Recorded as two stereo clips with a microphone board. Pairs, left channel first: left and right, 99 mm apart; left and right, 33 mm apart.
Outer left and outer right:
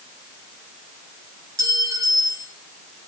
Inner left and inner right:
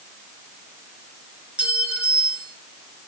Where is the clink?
35° right (ahead or behind), 1.9 m.